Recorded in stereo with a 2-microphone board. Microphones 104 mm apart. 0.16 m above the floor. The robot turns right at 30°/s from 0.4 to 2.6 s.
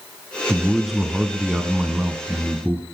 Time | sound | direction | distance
0.5 | a man speaking | 5° left (ahead or behind) | 1.0 m